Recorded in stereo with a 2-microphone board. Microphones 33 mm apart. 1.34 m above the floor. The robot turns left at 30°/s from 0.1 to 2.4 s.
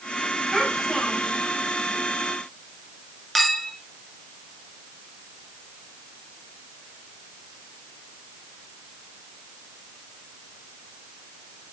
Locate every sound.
0.5 s a child speaking: 10° right (ahead or behind), 5.5 m; by 1.4 s 20° left (ahead or behind), 5.5 m
3.4 s a clink: 5° left (ahead or behind), 1.3 m